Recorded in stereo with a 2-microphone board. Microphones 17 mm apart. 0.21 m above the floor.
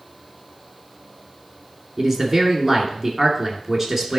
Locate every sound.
2.0 s a man speaking: 5° right (ahead or behind), 2 m